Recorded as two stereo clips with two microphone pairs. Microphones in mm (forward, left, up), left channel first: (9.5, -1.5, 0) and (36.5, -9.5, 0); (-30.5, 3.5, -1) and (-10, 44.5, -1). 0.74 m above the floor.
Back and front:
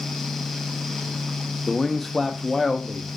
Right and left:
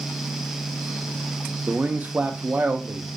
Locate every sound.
1.7 s a man speaking: 80° left, 0.5 m